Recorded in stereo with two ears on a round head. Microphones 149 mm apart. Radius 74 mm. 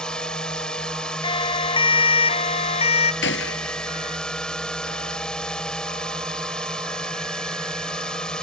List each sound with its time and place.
0.0 s a drone: 5° left (ahead or behind)
1.2 s a siren: 30° left (ahead or behind); by 3.1 s 35° left (ahead or behind)
3.2 s a gunshot: 80° left